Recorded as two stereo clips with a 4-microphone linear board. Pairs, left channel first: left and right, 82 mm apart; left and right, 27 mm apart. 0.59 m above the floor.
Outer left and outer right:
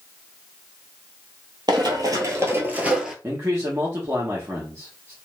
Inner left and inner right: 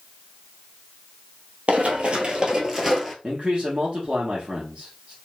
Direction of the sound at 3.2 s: 35° right (ahead or behind).